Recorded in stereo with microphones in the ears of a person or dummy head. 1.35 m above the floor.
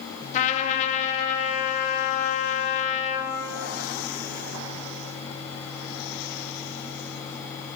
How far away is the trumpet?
About 0.6 m.